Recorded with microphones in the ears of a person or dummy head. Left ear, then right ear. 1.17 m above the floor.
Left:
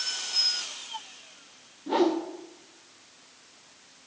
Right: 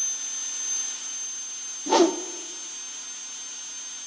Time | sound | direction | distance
1.9 | a whoosh | 75° right (ahead or behind) | 0.6 m